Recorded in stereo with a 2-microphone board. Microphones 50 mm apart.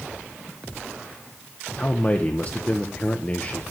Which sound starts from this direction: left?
A man speaking, at 1.8 s.